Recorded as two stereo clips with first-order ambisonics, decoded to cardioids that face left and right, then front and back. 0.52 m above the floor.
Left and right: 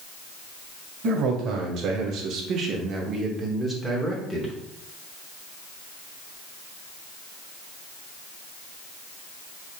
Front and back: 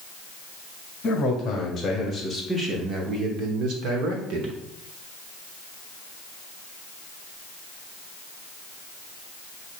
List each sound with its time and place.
1.0 s a man speaking: 65° right, 1.3 m; by 4.6 s 170° left, 1.3 m